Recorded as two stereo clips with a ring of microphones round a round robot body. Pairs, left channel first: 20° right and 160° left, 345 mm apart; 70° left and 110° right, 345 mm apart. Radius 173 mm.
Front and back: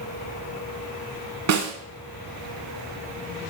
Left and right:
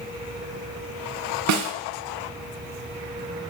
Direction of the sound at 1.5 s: 155° right.